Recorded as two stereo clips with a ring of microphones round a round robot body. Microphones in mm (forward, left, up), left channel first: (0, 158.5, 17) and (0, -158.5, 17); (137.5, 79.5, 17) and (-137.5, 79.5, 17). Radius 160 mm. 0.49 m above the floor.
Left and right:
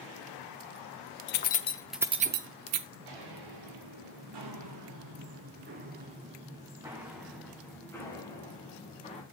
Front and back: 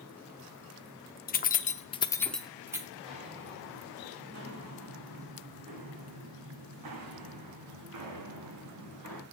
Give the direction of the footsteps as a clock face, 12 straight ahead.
3 o'clock.